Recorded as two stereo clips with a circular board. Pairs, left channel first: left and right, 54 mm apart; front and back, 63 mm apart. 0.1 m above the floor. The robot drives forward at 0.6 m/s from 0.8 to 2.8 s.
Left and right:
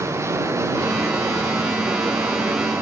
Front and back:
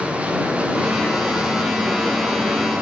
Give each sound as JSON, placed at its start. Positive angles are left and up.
{"t": 0.0, "sound": "running water", "azimuth_deg": -110, "distance_m": 6.5}